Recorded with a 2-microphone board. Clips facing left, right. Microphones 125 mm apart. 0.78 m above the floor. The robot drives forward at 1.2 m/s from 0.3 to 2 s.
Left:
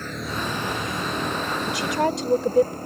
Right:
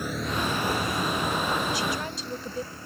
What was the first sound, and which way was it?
A vehicle, 15° right (ahead or behind).